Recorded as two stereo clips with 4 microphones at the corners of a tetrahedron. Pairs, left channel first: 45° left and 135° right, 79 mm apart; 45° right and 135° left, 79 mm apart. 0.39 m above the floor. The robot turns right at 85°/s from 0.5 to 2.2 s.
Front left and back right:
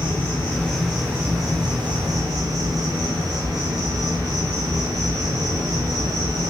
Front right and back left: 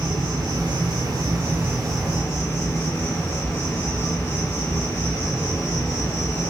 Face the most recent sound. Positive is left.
turn(degrees=-105)